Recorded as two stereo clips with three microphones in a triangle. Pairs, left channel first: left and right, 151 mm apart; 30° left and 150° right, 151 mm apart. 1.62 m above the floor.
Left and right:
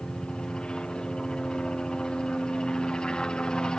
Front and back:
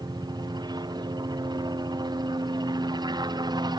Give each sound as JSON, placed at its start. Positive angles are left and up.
{"t": 0.0, "sound": "a helicopter", "azimuth_deg": 170}